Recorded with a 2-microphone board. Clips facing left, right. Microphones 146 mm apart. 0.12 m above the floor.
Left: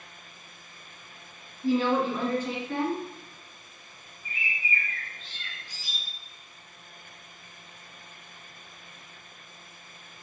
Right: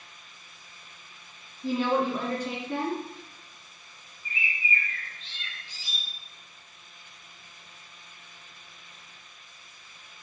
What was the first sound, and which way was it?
A woman speaking, 15° right (ahead or behind).